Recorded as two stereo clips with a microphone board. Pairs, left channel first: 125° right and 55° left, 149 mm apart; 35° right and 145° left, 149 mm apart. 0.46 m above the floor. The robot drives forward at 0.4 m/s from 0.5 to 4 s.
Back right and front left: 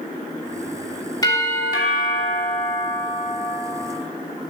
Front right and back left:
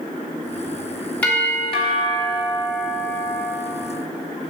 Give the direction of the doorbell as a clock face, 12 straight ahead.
3 o'clock.